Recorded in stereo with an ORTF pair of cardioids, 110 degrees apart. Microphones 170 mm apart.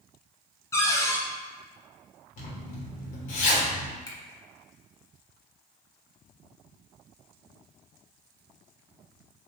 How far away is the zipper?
About 1.1 m.